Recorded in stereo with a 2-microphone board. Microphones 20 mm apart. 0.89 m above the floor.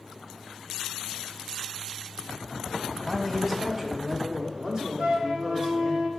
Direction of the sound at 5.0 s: 45° right (ahead or behind).